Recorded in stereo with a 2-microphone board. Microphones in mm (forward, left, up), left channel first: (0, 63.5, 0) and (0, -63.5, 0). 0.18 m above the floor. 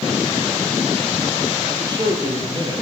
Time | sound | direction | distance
1.7 | a man speaking | 35° right (ahead or behind) | 6 m